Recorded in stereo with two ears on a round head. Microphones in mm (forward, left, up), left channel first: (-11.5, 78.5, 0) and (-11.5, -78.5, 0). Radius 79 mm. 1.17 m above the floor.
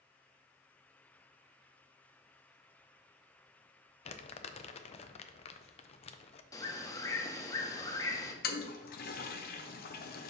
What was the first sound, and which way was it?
Crumpling, 35° left (ahead or behind).